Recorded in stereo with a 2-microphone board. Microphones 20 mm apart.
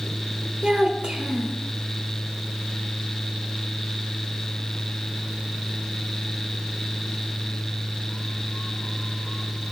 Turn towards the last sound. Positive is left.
turn(degrees=-55)  # may be behind; listen again after turning